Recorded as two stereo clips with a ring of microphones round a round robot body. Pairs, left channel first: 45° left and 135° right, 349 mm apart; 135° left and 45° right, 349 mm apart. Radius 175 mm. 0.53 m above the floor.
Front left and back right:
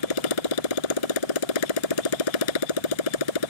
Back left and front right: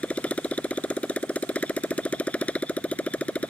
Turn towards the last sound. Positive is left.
turn(degrees=50)